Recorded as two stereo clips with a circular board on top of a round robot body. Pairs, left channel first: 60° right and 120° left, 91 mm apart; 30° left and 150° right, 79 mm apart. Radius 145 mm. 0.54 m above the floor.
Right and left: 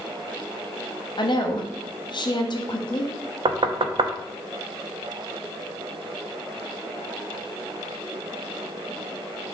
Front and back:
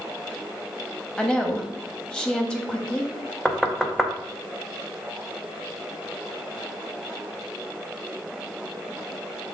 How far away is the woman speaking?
About 0.9 m.